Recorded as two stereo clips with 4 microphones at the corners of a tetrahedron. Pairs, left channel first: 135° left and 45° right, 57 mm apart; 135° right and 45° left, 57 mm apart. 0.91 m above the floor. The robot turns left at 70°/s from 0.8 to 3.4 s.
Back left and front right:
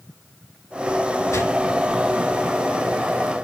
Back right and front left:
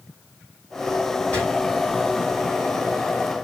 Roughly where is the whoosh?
Behind.